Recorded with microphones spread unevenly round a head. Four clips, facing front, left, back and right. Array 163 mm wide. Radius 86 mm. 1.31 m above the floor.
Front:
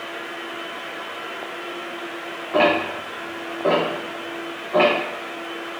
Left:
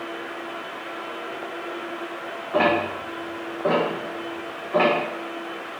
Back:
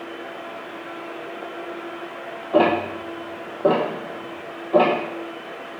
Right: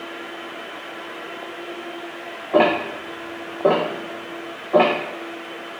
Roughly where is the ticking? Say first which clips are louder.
Right 3 dB, back 1 dB; behind right.